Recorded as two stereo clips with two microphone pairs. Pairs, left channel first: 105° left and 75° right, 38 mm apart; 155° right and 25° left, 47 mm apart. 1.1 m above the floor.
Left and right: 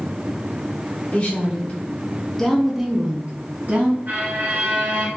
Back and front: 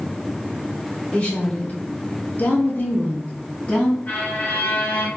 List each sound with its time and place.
1.1 s a woman speaking: 145° left, 1.6 m; by 4.0 s 95° right, 1.1 m
4.1 s a violin: 105° right, 1.6 m